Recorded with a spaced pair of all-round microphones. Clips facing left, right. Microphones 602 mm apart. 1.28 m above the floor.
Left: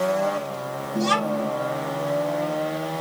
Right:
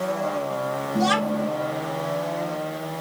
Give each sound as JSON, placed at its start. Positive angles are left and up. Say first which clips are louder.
{"t": 0.9, "sound": "a child speaking", "louder": "right 1 dB", "side_deg": -15, "distance_m": 1.0}